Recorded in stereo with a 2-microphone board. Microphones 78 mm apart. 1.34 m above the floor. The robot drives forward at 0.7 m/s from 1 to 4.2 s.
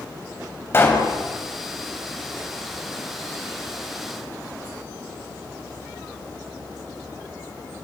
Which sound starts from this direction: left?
A pop, at 0.7 s.